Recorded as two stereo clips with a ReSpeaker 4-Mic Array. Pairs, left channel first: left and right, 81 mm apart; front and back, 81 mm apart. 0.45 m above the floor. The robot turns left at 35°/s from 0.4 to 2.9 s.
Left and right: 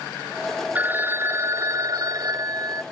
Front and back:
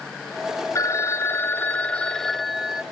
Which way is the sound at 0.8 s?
30° right.